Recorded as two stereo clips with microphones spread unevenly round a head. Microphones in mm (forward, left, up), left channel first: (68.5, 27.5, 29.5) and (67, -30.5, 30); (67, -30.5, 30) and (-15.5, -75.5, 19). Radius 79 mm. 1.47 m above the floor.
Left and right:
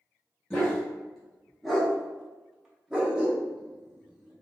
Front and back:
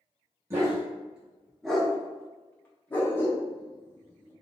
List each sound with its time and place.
0.5 s a dog barking: 155° left, 0.9 m; by 4.3 s 20° right, 1.8 m